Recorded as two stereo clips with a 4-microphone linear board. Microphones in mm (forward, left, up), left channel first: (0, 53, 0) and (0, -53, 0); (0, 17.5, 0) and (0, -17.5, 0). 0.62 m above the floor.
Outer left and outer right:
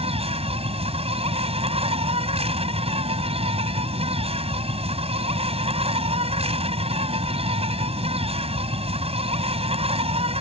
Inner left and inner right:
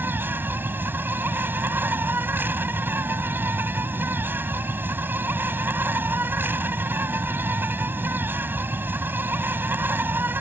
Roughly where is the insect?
Right.